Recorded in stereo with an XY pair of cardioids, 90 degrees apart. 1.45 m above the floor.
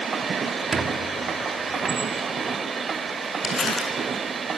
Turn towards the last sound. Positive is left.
turn(degrees=50)